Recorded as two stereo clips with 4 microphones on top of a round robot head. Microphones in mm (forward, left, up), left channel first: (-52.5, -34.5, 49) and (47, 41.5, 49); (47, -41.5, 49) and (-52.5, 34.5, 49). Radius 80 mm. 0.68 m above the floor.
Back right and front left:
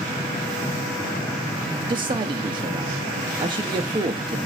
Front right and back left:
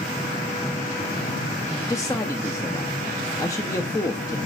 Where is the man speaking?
15° left, 0.7 m.